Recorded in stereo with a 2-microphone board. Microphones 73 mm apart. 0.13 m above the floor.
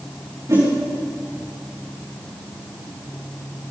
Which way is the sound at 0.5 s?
45° right (ahead or behind).